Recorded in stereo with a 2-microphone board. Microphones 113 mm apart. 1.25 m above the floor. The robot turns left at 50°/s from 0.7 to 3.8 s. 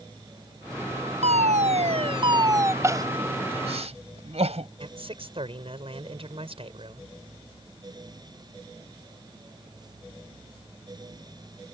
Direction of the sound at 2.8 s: 25° right (ahead or behind).